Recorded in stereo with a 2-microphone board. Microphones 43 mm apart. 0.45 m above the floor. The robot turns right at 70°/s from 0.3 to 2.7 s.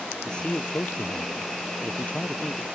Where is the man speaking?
20° left; by 2.6 s 175° right.